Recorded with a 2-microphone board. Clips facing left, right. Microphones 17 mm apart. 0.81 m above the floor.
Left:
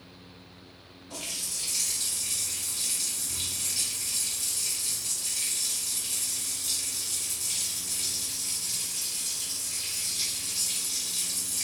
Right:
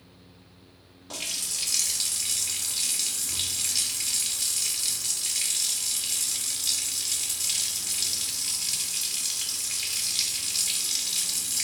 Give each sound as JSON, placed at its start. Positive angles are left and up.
{"t": 1.1, "sound": "a running tap", "side_deg": -70, "distance_m": 0.7}